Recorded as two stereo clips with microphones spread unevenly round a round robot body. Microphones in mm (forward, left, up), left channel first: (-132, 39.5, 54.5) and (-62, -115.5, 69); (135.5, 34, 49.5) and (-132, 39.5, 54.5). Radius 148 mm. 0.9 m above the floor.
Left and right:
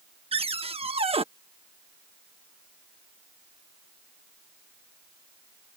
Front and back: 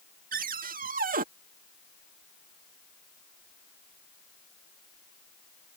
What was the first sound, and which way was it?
A cupboard door, 120° right.